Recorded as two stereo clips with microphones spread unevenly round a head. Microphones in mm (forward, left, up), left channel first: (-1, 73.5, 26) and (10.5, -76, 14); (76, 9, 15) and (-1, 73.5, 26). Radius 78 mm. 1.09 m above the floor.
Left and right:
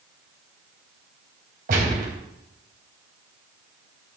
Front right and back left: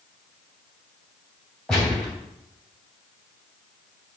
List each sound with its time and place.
1.7 s a gunshot: 125° right, 4 m